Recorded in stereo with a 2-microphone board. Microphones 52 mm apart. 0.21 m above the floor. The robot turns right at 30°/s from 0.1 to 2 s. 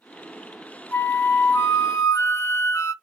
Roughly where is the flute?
Ahead left.